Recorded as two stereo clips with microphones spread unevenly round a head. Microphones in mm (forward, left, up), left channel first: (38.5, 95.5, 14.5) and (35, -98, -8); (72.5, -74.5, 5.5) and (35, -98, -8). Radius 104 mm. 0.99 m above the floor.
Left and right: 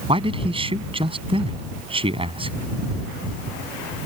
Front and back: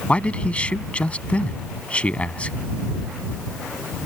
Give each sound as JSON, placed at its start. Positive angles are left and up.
{"t": 0.1, "sound": "a man speaking", "azimuth_deg": -30}